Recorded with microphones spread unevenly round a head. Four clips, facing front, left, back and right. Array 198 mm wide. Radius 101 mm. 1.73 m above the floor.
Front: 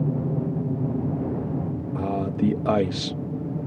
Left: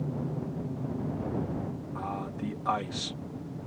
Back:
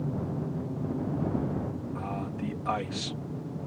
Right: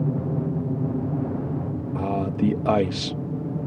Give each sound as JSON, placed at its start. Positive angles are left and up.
{"t": 0.0, "sound": "an aircraft", "azimuth_deg": -50}
{"t": 1.9, "sound": "a man speaking", "azimuth_deg": -50}